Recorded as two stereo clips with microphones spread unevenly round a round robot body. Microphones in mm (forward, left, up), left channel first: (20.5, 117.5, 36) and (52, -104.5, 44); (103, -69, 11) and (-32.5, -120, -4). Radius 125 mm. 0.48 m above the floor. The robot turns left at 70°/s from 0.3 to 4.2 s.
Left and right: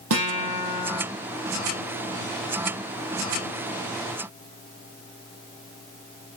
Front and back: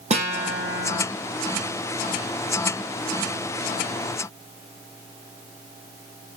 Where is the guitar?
115° right, 9 m; by 1.0 s 165° right, 9 m.